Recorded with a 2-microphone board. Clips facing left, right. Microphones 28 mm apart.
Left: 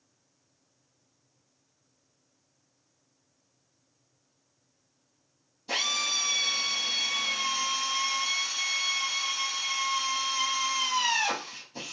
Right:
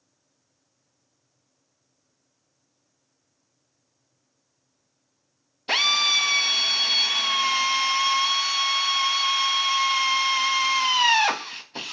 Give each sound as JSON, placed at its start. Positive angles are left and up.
{"t": 5.7, "sound": "a drill", "side_deg": -60, "distance_m": 0.7}